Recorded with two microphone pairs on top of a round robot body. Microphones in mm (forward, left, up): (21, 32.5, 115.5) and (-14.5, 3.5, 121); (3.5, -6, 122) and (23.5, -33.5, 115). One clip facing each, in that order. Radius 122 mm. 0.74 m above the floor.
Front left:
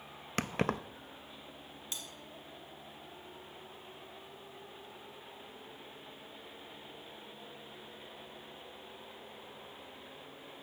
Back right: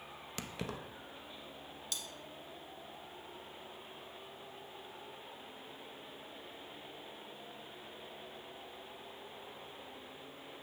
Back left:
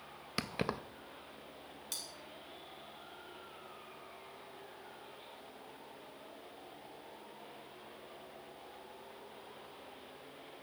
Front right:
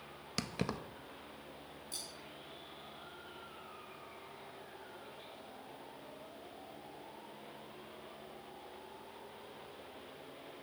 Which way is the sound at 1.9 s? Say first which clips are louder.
Even, back left 2 dB; 100° left.